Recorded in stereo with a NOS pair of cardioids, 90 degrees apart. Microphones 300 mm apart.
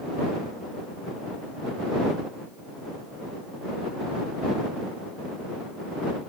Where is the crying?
I don't hear crying.